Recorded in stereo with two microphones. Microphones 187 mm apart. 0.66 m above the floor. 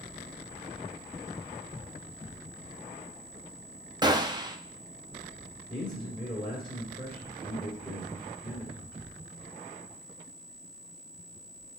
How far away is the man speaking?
About 3 m.